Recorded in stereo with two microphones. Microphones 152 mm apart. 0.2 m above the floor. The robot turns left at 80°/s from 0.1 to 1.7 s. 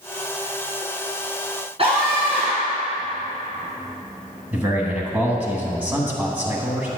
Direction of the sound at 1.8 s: 40° right (ahead or behind).